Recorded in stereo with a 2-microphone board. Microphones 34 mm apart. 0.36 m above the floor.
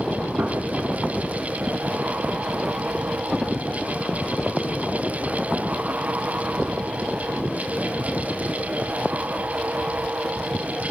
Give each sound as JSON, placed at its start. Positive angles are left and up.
{"t": 0.4, "sound": "a gunshot", "side_deg": -60, "distance_m": 3.0}